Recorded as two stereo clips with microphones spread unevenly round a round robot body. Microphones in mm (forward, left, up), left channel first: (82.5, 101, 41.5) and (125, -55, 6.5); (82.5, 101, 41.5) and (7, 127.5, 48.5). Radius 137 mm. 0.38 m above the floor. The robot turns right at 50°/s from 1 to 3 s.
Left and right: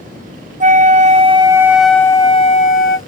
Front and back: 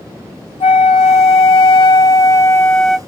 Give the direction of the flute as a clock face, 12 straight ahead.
1 o'clock.